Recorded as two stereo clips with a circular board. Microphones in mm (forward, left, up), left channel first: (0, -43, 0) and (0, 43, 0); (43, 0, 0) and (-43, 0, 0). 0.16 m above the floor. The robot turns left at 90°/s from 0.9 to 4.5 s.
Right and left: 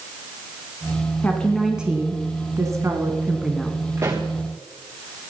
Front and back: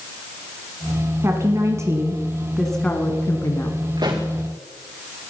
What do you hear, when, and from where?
1.2 s a woman speaking: 145° right, 1.7 m; by 3.8 s 20° right, 1.7 m
4.0 s a pop: 150° left, 3 m; by 4.3 s 120° left, 3 m